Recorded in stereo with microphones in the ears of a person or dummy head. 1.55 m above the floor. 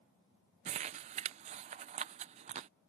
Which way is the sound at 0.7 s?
40° right (ahead or behind).